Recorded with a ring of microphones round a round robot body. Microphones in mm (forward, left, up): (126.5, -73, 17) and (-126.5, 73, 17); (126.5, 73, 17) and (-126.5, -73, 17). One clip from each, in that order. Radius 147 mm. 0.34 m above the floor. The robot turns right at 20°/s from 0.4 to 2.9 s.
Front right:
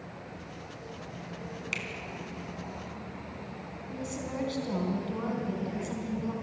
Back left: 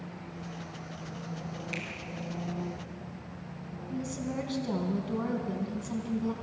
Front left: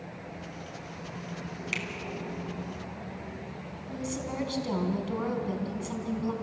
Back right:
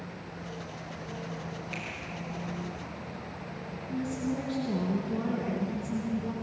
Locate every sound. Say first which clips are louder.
1.7 s a finger snap: front right 3 dB, front left 7 dB; 25° left, 3.5 m
3.9 s a woman speaking: back left 1 dB, back right 1 dB; 60° left, 3.5 m